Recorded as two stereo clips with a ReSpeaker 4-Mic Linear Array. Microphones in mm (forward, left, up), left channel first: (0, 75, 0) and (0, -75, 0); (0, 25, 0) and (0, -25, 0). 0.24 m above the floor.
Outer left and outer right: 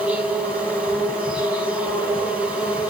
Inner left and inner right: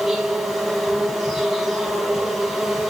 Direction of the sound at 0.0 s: 10° right (ahead or behind).